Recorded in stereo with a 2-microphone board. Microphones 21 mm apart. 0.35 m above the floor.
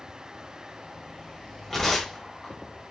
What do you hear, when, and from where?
1.7 s tearing paper: 10° left (ahead or behind), 1.1 m